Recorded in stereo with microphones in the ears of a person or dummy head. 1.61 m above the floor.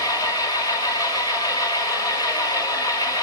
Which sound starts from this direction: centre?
An engine running, at 0.0 s.